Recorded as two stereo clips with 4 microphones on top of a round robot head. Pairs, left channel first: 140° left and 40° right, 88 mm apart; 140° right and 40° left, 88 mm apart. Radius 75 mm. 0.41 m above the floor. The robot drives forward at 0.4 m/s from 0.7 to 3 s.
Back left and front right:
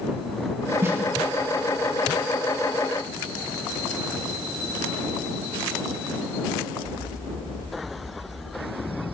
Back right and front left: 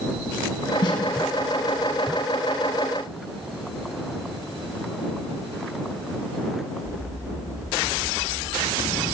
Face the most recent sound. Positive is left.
turn(degrees=-120)